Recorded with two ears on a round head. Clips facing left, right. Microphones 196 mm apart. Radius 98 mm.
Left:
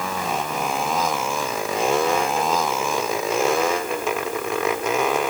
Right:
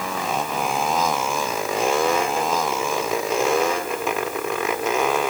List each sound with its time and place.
Only background noise.